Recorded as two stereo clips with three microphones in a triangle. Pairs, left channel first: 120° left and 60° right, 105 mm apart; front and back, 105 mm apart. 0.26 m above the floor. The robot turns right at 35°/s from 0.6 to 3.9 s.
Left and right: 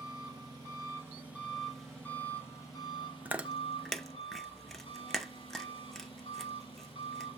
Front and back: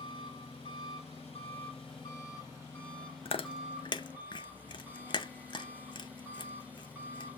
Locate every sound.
0.0 s an engine running: 10° right, 3 m; by 7.4 s 105° left, 3 m
3.2 s chewing: 10° left, 0.6 m; by 7.3 s 35° left, 0.6 m